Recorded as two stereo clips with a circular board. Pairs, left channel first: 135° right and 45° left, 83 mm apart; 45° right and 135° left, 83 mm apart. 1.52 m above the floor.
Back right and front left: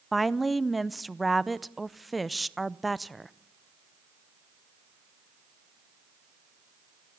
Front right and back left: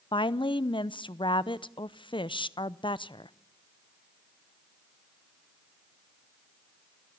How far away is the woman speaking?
About 0.7 m.